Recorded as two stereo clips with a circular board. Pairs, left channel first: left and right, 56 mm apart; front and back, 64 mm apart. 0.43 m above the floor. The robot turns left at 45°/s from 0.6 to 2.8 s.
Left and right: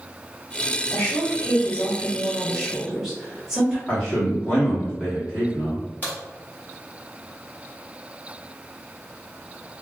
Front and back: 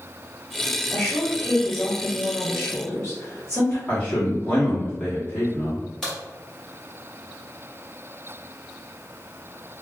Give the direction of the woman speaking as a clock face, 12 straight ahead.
9 o'clock.